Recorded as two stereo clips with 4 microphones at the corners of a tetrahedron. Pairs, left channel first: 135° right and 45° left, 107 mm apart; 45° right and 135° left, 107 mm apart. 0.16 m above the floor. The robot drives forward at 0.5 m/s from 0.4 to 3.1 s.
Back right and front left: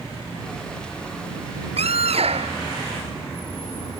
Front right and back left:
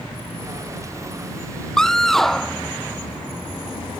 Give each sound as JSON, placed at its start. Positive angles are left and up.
{"t": 1.8, "sound": "a scream", "azimuth_deg": 40}